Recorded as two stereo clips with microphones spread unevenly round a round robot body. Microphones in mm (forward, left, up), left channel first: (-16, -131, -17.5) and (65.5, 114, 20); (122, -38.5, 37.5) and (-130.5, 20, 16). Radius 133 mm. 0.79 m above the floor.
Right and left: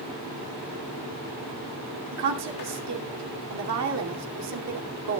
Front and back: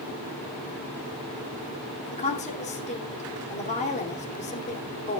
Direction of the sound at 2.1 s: 50° left.